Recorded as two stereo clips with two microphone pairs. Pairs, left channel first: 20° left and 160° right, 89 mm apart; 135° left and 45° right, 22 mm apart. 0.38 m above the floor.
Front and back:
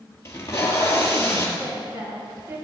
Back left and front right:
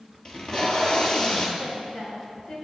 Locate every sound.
0.2 s tape being pulled: 75° left, 2.0 m
1.6 s a woman speaking: 145° left, 3.5 m